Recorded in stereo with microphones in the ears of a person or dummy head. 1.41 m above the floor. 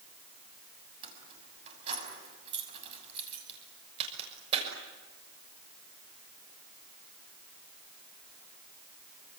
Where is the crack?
30° right (ahead or behind), 6 m.